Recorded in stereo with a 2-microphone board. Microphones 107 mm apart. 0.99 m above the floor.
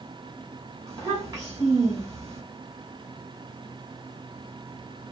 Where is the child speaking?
35° right (ahead or behind), 3 m.